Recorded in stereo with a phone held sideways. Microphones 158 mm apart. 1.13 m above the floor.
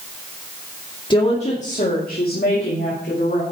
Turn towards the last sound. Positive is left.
turn(degrees=85)